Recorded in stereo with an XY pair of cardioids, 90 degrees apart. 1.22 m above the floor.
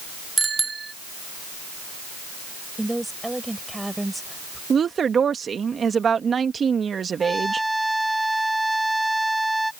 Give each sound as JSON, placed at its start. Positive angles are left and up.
{"t": 0.4, "sound": "a bicycle bell", "azimuth_deg": -30}
{"t": 2.8, "sound": "a woman speaking", "azimuth_deg": -10}
{"t": 4.7, "sound": "a woman speaking", "azimuth_deg": -50}
{"t": 7.2, "sound": "a trumpet", "azimuth_deg": -5}